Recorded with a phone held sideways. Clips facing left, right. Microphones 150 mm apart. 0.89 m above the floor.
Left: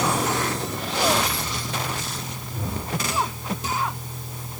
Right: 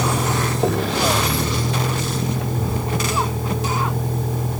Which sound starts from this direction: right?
A vehicle, at 0.0 s.